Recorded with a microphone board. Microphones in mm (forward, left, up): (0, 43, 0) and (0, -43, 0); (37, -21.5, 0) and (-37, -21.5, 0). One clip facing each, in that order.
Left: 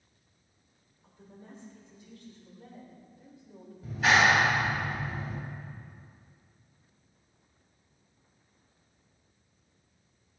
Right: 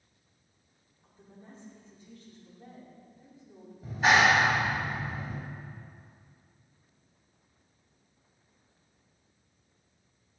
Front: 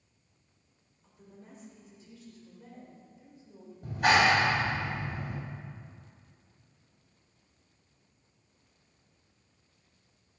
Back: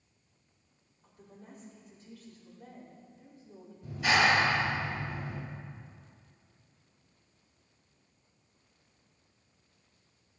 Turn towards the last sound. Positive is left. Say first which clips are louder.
# right 1 dB, front 3 dB
turn(degrees=-35)